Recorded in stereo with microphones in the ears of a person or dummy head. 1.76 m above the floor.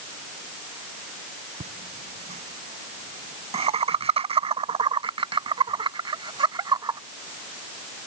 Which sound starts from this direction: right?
Laughter, at 1.6 s.